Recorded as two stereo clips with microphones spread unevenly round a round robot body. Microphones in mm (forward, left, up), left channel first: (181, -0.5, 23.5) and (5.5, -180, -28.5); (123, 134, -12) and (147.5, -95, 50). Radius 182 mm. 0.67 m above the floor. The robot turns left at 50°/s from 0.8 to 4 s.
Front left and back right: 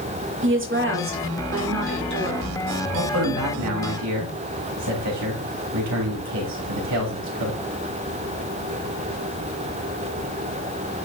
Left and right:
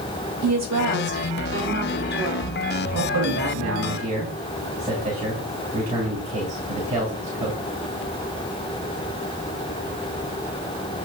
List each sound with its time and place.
0.4 s a woman speaking: 110° right, 1.9 m; by 2.5 s 165° left, 1.9 m
2.9 s a man speaking: 105° right, 3 m; by 7.6 s 155° right, 3 m